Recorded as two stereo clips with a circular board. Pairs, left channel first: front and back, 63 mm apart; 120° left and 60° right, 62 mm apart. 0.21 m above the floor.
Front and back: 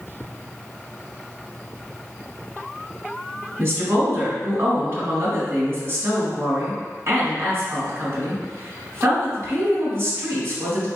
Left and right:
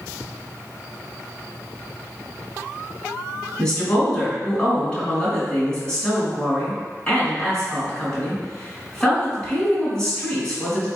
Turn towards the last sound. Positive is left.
turn(degrees=175)